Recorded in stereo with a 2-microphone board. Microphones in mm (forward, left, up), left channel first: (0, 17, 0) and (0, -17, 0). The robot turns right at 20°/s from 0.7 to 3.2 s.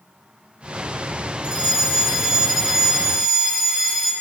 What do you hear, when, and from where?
1.4 s a fire alarm: 40° right, 4.5 m; by 4.1 s 5° right, 4.5 m